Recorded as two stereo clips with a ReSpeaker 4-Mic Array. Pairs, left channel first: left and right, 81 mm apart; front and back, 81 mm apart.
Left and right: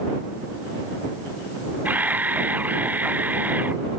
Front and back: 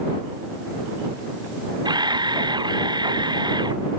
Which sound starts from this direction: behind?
A camera shutter, at 1.9 s.